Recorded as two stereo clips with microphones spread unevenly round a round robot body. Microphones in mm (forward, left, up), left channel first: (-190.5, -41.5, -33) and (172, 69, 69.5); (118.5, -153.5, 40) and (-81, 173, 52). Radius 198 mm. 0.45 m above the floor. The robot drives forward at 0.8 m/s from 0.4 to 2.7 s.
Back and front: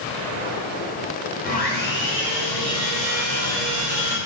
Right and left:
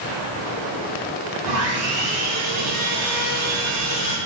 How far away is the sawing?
About 1.7 m.